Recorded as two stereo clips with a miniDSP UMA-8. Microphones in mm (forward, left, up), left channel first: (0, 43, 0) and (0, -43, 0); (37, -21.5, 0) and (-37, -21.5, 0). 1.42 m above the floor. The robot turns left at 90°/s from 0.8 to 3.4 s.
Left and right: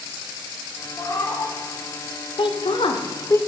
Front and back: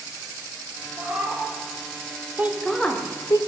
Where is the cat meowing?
130° left, 0.9 m; by 1.6 s 75° left, 0.9 m.